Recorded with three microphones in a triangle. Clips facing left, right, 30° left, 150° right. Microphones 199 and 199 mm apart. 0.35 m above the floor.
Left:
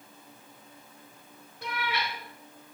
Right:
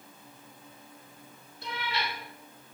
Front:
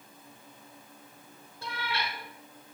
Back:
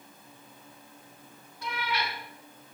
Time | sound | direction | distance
1.6 | a cat meowing | 90° left | 1.5 m